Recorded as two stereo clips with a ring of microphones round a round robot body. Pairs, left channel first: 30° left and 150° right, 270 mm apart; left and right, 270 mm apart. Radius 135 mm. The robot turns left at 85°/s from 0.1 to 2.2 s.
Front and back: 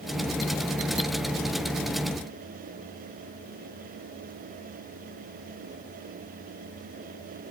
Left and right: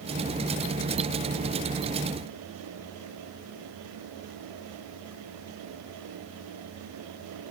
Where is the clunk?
No clunk in this recording.